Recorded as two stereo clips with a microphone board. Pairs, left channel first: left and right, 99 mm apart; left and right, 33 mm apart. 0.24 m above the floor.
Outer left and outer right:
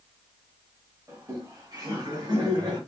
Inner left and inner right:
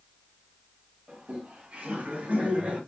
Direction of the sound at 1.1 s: 30° right (ahead or behind).